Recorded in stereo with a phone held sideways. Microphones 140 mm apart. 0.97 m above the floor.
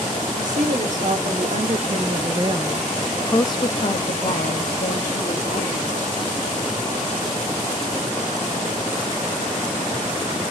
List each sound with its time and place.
0.4 s a woman speaking: 70° right (ahead or behind), 1.4 m; by 6.0 s 75° left (ahead or behind), 1.6 m